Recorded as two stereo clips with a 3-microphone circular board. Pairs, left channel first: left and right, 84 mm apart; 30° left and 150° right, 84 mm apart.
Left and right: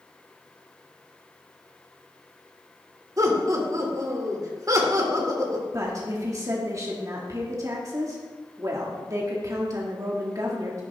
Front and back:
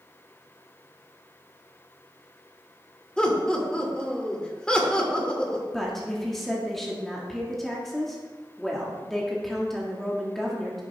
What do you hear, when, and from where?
3.2 s laughter: 50° right, 2.5 m
5.7 s a woman speaking: 55° right, 1.7 m